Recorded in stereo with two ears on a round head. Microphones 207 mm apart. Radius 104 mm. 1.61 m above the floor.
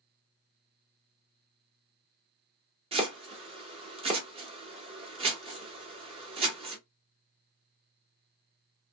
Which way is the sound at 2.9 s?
25° right (ahead or behind).